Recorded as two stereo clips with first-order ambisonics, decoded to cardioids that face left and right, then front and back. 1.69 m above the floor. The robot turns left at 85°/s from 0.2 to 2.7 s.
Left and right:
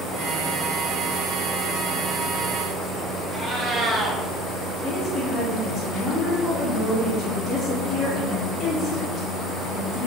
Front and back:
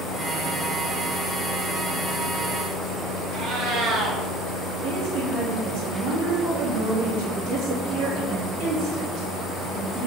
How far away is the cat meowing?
About 1.2 m.